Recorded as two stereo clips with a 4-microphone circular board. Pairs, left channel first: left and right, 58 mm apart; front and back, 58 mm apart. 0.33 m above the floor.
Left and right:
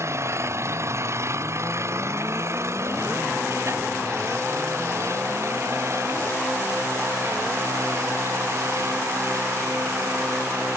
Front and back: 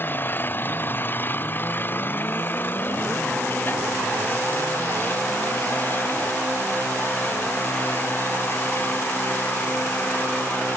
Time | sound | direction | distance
0.0 | an engine running | 55° right | ?